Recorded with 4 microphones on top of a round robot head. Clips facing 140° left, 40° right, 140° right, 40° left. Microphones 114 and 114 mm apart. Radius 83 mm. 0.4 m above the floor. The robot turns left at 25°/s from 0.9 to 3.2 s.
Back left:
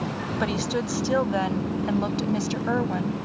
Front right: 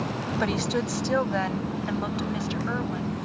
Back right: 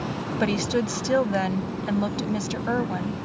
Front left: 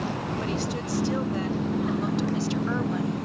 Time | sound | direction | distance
0.4 | a woman speaking | 130° right | ?